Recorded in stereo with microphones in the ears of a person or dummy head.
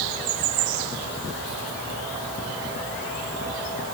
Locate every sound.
Only background noise.